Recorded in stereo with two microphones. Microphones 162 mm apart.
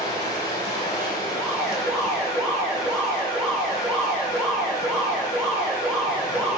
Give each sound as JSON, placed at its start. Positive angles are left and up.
{"t": 0.0, "sound": "running water", "side_deg": 25, "distance_m": 2.0}
{"t": 1.3, "sound": "an alarm", "side_deg": 5, "distance_m": 1.6}